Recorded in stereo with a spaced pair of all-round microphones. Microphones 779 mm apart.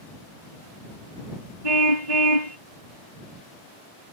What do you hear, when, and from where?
1.6 s a car horn: 60° right (ahead or behind)